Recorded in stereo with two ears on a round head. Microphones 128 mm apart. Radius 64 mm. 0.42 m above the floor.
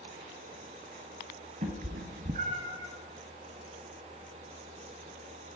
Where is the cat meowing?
50° right (ahead or behind), 1.0 m; by 2.9 s 20° right (ahead or behind), 1.3 m.